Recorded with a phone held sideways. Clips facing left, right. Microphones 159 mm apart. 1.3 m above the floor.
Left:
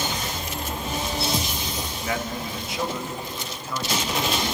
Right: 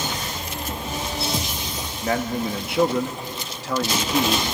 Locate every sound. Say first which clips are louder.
2.0 s a man speaking: right 7 dB; 40° right (ahead or behind), 1.5 m; by 4.4 s 80° right, 1.9 m